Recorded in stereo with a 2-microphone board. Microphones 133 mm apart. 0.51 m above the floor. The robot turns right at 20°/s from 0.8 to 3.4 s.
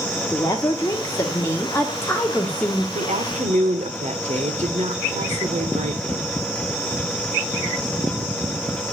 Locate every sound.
0.3 s a woman speaking: 25° left (ahead or behind), 1.4 m; by 2.9 s 5° left (ahead or behind), 1.4 m
3.0 s a woman speaking: 60° right (ahead or behind), 1.5 m; by 6.3 s 55° right (ahead or behind), 1.5 m